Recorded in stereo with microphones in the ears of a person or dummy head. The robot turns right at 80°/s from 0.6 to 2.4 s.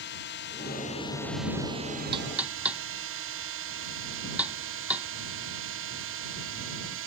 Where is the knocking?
30° right (ahead or behind); by 5.1 s 10° right (ahead or behind).